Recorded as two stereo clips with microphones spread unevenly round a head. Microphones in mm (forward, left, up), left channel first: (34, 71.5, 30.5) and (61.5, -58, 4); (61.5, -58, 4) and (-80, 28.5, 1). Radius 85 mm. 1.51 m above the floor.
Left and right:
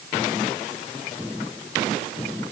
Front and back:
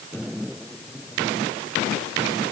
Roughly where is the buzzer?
I don't hear a buzzer.